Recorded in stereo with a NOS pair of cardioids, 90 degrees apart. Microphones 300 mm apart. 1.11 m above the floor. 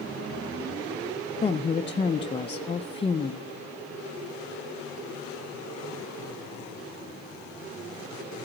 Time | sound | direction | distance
1.4 | a woman speaking | 20° left | 0.5 m